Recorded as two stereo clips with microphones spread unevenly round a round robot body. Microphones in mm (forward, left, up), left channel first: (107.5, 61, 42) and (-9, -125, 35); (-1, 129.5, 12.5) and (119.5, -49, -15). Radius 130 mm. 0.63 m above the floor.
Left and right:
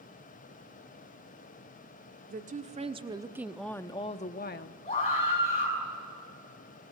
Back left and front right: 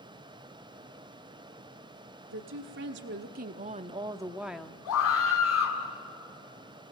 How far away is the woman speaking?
About 1.7 m.